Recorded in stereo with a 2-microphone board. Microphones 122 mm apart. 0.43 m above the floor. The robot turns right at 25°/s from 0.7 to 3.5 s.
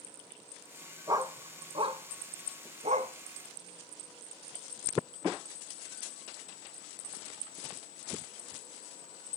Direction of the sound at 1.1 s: 30° right (ahead or behind).